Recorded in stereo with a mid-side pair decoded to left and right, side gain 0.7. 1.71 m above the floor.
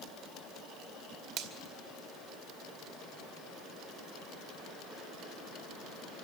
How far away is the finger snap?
About 2 m.